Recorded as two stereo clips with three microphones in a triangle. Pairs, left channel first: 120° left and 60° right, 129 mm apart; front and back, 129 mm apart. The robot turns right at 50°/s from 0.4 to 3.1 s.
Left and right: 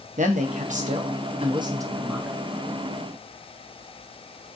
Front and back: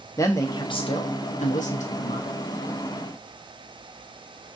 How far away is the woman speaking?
About 0.7 m.